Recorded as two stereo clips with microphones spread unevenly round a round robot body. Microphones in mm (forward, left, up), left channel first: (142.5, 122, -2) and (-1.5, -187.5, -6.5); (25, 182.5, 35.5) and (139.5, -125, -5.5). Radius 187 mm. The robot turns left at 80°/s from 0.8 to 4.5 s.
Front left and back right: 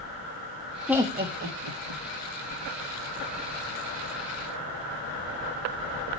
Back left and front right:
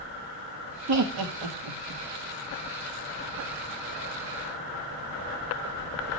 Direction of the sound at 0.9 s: 25° right.